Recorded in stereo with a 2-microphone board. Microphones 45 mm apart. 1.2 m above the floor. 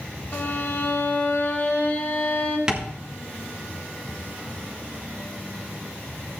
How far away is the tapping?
About 1.4 m.